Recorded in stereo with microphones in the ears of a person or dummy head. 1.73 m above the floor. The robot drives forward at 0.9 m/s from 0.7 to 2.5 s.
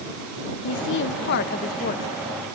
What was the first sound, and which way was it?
A woman speaking, 70° left (ahead or behind).